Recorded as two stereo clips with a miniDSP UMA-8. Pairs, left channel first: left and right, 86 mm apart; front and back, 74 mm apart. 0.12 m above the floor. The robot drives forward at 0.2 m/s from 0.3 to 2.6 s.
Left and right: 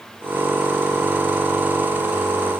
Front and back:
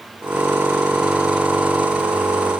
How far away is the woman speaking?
No woman speaking in this recording.